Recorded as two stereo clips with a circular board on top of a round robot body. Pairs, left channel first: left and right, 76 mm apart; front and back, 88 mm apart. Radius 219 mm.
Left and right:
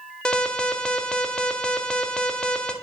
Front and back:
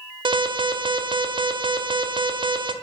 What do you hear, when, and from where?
0.2 s an alarm: 170° left, 0.9 m